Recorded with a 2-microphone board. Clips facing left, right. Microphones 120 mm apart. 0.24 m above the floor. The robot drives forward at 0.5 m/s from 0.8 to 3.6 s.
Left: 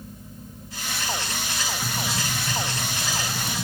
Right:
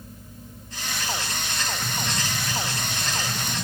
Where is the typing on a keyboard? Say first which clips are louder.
Left 1 dB; 10° left (ahead or behind), 5.5 m.